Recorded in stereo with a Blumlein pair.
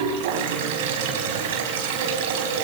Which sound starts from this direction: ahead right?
Running water, at 0.0 s.